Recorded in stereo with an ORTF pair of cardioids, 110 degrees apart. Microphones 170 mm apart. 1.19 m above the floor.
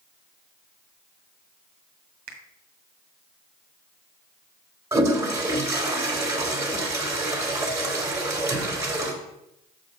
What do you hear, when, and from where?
2.3 s a finger snap: 65° right, 1.8 m
4.9 s a toilet flushing: 15° right, 2 m